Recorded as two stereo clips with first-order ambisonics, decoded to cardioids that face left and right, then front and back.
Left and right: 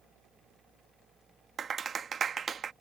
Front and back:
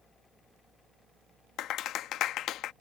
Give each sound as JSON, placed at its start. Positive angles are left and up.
{"t": 1.6, "sound": "a clap", "azimuth_deg": -30}